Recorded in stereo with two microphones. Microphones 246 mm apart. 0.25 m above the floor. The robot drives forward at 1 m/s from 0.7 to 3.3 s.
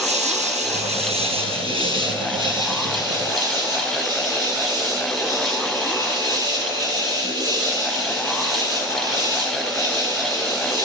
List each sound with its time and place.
0.0 s an insect: 25° right (ahead or behind), 3.5 m; by 10.9 s 15° right (ahead or behind), 6 m